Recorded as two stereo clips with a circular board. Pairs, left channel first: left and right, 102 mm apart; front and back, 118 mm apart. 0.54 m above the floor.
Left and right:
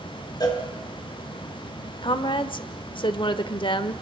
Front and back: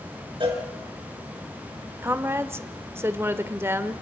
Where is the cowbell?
135° left, 4.5 m.